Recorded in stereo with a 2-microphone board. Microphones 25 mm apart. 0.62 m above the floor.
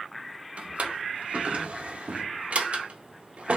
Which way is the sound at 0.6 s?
65° right (ahead or behind).